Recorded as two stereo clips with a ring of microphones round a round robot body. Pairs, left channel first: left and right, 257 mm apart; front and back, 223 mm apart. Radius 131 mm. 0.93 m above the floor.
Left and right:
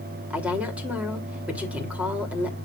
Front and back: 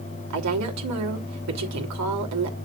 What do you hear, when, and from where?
0.3 s a woman speaking: 175° right, 3 m